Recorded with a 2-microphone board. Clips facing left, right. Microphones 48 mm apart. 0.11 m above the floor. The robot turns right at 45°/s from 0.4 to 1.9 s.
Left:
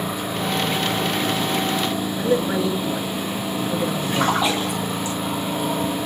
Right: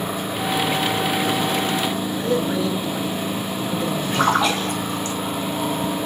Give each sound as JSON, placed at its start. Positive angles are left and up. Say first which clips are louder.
{"t": 2.2, "sound": "a man speaking", "louder": "left 2 dB", "side_deg": 15, "distance_m": 1.3}
{"t": 4.1, "sound": "a splash", "louder": "right 2 dB", "side_deg": -55, "distance_m": 4.0}